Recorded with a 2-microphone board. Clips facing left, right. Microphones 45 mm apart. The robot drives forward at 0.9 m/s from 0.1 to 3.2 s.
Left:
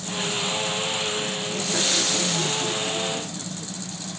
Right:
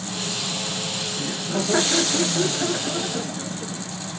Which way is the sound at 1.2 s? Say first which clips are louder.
Right 1 dB; 45° right (ahead or behind).